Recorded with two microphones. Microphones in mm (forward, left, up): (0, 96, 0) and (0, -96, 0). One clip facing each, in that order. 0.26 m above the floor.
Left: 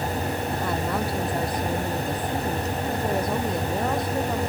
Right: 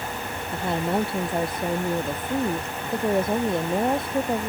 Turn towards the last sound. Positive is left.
turn(degrees=-25)  # may be behind; listen again after turning